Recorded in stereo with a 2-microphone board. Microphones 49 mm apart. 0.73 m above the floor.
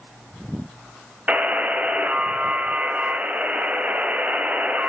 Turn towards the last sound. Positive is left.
turn(degrees=-30)  # may be behind; listen again after turning